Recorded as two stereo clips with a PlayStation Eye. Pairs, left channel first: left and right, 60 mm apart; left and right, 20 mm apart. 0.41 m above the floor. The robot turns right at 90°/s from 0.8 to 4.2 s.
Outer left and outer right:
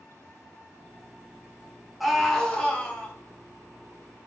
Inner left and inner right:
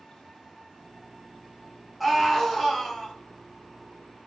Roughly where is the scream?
Centre.